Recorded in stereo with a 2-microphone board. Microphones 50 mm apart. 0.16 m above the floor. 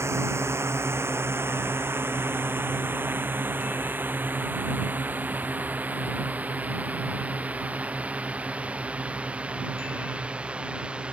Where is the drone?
65° right (ahead or behind); by 11.1 s 20° right (ahead or behind).